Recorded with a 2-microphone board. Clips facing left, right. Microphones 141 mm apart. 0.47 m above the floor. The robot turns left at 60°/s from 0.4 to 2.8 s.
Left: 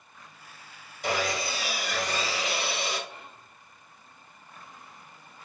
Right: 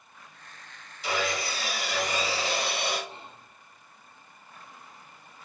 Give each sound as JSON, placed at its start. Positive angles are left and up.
{"t": 1.0, "sound": "sawing", "azimuth_deg": 45, "distance_m": 2.5}
{"t": 3.1, "sound": "whispering", "side_deg": -25, "distance_m": 0.9}